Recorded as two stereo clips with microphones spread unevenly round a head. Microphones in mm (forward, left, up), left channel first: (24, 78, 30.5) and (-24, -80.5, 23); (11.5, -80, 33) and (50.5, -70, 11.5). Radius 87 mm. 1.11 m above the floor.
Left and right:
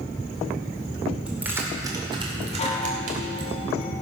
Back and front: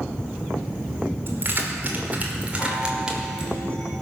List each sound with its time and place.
1.3 s keys jangling: 20° right, 2 m; by 3.6 s 70° right, 2.5 m
2.6 s a chime: 125° left, 1.2 m